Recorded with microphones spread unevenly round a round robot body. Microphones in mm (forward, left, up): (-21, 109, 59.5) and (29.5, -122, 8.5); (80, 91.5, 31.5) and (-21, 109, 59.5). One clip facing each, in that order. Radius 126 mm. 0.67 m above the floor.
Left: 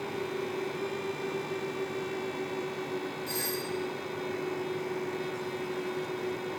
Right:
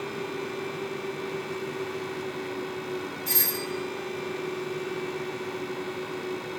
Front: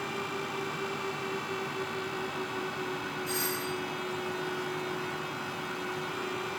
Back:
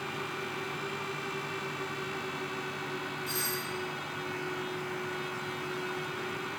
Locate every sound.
3.3 s a doorbell: 110° right, 2.5 m